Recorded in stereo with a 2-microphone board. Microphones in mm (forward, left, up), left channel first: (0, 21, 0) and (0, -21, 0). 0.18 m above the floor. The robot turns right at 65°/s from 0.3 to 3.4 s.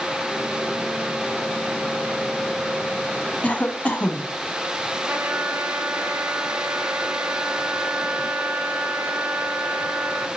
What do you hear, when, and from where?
3.4 s a cough: 35° left (ahead or behind), 1.2 m
5.1 s a trumpet: 60° right (ahead or behind), 0.8 m